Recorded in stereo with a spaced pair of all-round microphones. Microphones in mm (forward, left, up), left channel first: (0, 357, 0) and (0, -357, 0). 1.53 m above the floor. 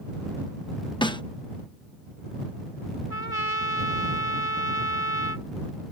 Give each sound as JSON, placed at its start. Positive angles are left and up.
{"t": 1.0, "sound": "a snare drum", "side_deg": 5}
{"t": 3.1, "sound": "a trumpet", "side_deg": -55}